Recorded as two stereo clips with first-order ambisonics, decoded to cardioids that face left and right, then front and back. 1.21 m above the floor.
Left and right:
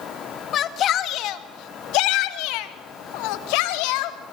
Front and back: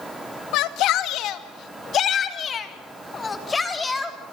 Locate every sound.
0.5 s a shout: 35° left, 2 m; by 4.3 s 80° left, 3.5 m